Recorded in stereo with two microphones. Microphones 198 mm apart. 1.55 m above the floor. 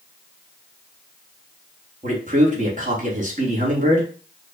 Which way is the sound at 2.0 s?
40° right (ahead or behind).